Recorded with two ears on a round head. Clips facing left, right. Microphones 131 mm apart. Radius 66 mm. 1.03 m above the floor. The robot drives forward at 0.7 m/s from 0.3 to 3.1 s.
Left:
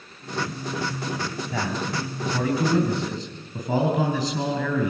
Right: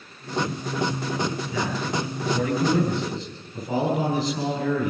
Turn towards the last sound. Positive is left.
turn(degrees=60)  # may be behind; listen again after turning